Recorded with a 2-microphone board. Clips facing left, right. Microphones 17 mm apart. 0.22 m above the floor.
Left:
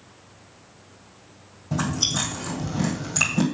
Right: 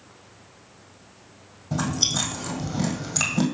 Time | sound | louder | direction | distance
1.7 | chewing | even | 5° right (ahead or behind) | 1.8 m